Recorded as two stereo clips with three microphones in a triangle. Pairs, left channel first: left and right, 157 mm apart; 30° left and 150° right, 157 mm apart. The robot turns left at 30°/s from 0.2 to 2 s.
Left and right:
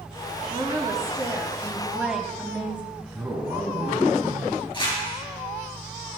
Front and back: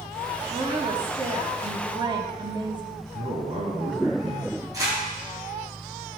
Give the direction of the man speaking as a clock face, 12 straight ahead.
5 o'clock.